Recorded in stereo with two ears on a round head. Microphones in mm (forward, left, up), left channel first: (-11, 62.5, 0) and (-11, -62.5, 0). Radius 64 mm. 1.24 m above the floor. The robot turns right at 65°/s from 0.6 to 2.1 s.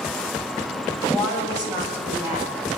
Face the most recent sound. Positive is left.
turn(degrees=-120)